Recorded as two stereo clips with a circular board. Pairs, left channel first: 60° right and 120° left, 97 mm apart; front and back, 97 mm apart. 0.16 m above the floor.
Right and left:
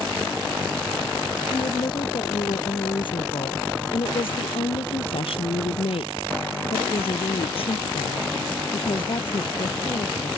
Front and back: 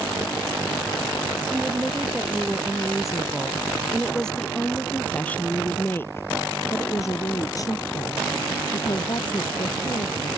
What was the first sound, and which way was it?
A woman speaking, 100° right.